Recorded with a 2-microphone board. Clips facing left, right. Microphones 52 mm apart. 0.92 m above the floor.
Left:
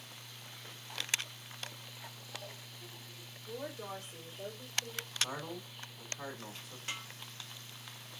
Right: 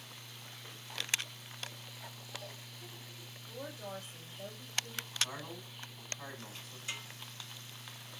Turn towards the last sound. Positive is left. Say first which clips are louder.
# left 1 dB
turn(degrees=65)  # may be behind; listen again after turning